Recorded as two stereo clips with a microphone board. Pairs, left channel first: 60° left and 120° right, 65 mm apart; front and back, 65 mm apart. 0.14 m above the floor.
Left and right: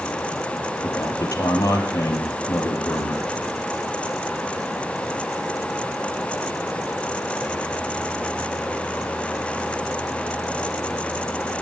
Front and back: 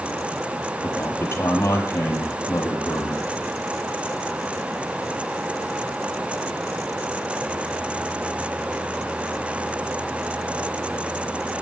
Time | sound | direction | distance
0.8 | a man speaking | 40° left | 4.5 m